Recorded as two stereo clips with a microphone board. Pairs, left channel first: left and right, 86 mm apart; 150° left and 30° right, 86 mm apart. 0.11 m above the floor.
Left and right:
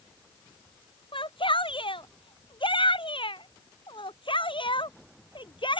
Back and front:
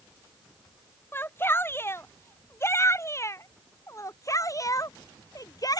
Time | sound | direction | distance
1.1 | a shout | 85° left | ?